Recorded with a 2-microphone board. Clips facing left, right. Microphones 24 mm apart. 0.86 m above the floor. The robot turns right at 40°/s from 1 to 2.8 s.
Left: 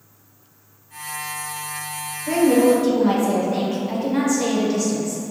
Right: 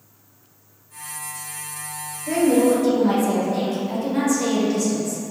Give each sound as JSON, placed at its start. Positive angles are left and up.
{"t": 2.3, "sound": "a woman speaking", "side_deg": 10, "distance_m": 0.9}